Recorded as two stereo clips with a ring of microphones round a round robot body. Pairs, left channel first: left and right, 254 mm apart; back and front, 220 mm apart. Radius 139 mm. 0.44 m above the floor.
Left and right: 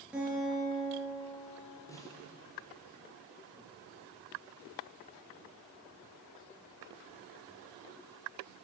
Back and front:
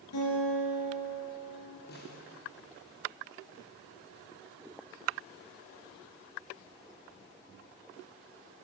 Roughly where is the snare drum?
Behind.